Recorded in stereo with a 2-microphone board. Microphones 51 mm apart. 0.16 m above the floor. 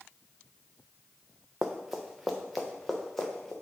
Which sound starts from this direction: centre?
Running footsteps, at 1.6 s.